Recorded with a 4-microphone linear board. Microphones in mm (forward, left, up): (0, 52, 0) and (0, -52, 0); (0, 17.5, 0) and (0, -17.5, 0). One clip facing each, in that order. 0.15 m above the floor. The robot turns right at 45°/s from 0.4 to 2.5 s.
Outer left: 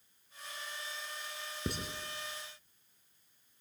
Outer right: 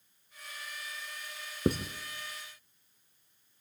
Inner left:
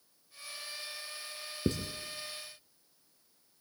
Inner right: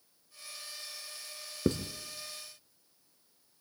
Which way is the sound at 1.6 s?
45° right (ahead or behind).